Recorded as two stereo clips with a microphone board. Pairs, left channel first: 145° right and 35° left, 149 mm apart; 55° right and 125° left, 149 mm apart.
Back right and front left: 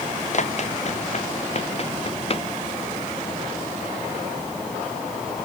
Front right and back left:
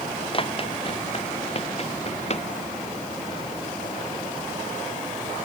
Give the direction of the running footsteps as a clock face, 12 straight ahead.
4 o'clock.